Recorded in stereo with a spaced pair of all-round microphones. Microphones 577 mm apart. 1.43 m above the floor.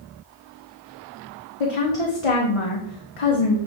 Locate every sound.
1.6 s a woman speaking: 65° left (ahead or behind), 1.0 m